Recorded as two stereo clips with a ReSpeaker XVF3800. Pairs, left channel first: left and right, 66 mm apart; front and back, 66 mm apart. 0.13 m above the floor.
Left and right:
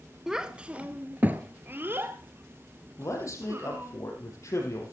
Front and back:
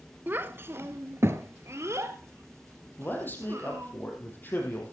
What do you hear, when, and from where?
0.3 s a child speaking: 165° right, 0.9 m; by 3.9 s 135° right, 3 m
3.0 s a man speaking: 55° left, 4 m